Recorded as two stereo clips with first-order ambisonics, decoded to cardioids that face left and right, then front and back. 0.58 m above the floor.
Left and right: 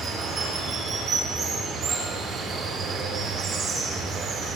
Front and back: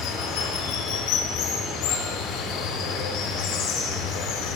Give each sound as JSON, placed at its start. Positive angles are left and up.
{"t": 0.0, "sound": "running water", "azimuth_deg": -25, "distance_m": 1.7}